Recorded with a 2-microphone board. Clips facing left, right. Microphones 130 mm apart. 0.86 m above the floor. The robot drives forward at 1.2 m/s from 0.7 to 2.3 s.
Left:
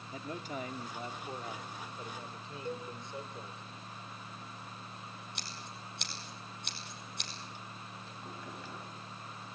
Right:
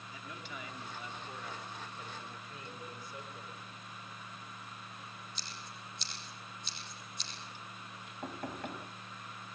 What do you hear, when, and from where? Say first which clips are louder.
0.1 s a man speaking: left 8 dB; 40° left (ahead or behind), 2.5 m; by 3.6 s 25° left (ahead or behind), 4 m
2.6 s a cowbell: left 10 dB; 50° left (ahead or behind), 4 m
5.3 s scissors: left 2 dB; 65° left (ahead or behind), 5.5 m
8.2 s knocking: right 7 dB; 55° right (ahead or behind), 3.5 m